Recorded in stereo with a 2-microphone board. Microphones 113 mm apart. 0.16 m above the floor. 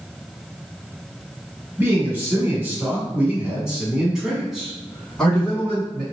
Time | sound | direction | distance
1.8 | a man speaking | 20° right (ahead or behind) | 1.7 m